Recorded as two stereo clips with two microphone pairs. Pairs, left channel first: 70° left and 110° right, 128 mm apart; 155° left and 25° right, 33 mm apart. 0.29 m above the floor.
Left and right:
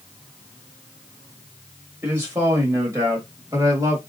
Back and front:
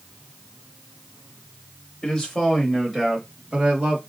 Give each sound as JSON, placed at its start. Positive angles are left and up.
{"t": 2.0, "sound": "a man speaking", "azimuth_deg": -160, "distance_m": 1.0}